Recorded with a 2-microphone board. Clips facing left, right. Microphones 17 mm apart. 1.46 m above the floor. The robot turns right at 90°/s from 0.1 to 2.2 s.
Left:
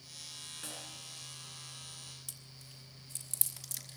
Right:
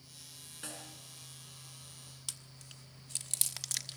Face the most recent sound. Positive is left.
turn(degrees=-45)  # may be behind; listen again after turning